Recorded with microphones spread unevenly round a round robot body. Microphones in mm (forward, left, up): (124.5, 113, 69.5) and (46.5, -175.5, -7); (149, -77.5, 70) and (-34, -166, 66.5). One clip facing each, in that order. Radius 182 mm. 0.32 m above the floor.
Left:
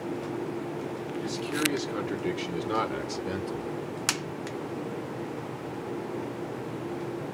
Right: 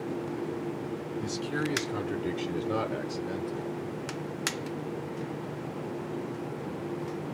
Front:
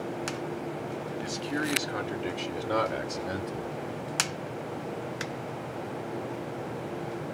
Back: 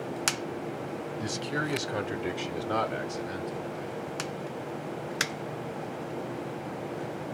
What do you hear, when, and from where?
1.2 s a man speaking: 170° right, 1.3 m; by 3.7 s 35° left, 1.1 m